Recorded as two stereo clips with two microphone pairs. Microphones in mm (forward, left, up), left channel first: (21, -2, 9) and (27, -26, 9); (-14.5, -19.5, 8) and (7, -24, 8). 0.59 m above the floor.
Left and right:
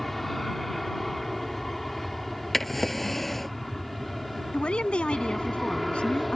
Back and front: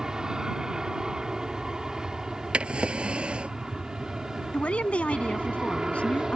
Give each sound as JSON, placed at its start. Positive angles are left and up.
{"t": 0.0, "sound": "an aircraft", "azimuth_deg": 25}
{"t": 2.5, "sound": "a drawer", "azimuth_deg": 25}
{"t": 4.5, "sound": "a woman speaking", "azimuth_deg": 145}